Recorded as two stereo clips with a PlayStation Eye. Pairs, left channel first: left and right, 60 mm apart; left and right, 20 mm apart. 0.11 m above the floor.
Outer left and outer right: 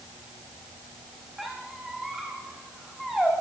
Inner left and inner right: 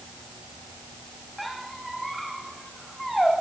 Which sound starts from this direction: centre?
A squeak, at 1.4 s.